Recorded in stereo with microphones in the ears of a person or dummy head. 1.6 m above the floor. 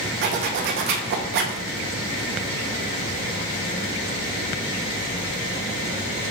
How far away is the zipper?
About 0.6 m.